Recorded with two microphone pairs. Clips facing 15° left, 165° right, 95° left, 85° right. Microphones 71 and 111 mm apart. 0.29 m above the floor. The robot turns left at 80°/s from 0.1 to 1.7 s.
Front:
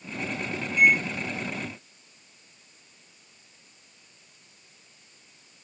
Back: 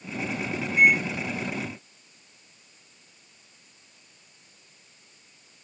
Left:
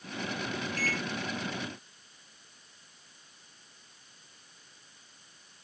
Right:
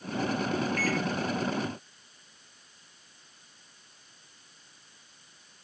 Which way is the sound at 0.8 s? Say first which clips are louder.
Back 1 dB, right 5 dB; 145° left.